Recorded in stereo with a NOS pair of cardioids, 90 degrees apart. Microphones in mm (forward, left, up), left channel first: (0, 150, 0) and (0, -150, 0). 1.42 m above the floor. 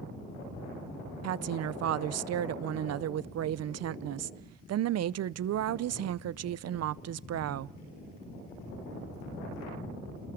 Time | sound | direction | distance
1.2 | a woman speaking | 55° right | 0.6 m